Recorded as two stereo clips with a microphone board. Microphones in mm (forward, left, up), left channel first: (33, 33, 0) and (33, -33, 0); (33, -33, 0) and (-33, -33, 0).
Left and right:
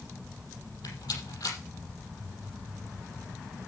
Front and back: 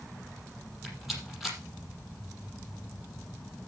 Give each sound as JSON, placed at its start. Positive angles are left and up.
{"t": 0.8, "sound": "a rattle", "azimuth_deg": 90, "distance_m": 5.5}